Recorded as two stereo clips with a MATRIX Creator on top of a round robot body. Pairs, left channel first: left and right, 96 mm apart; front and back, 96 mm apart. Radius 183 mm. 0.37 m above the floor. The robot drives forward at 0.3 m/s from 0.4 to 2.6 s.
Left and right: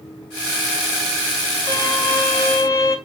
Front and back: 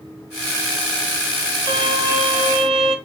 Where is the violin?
140° left, 0.6 m; by 3.0 s 150° left, 0.8 m.